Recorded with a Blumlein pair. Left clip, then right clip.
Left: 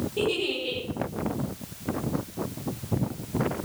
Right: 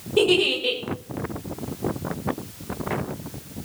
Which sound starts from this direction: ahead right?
A giggle, at 0.2 s.